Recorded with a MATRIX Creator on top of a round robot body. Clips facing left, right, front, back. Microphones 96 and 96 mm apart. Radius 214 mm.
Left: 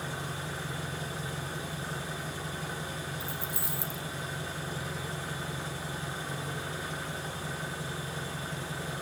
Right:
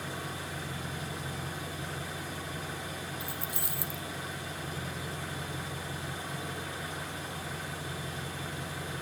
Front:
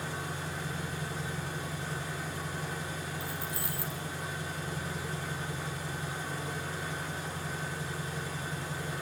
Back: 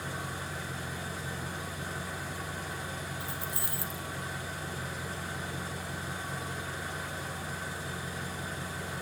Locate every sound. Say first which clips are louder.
0.0 s an engine running: left 1 dB, front 1 dB; 30° left, 3 m
3.2 s keys jangling: left 1 dB, front 1 dB; 115° right, 0.8 m